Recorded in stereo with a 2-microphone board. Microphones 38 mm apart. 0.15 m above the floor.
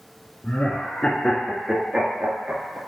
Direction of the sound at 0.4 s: 50° left (ahead or behind).